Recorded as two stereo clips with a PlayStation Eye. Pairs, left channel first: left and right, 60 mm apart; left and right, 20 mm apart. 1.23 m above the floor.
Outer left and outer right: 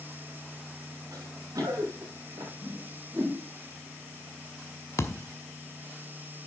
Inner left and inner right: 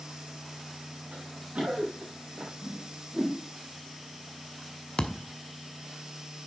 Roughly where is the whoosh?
Right.